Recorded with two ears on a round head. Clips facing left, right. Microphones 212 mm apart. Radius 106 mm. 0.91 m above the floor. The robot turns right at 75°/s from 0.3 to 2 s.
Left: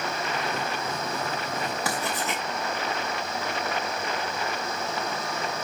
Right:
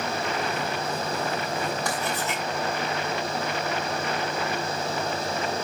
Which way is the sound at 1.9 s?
5° left (ahead or behind).